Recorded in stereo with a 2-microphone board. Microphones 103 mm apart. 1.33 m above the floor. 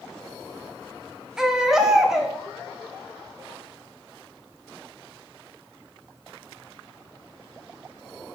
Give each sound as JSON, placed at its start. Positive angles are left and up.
{"t": 1.4, "sound": "a baby crying", "side_deg": -5, "distance_m": 1.2}